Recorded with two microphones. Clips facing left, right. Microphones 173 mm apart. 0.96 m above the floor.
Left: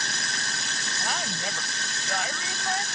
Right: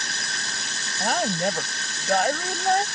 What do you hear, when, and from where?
1.0 s a woman speaking: 50° right (ahead or behind)